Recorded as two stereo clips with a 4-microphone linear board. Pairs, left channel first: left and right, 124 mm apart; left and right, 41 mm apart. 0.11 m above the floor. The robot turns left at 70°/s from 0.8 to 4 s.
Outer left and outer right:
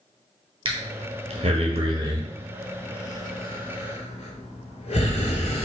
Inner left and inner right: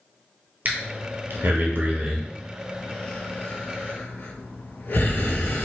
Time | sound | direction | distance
0.7 | breathing | 45° right (ahead or behind) | 0.7 m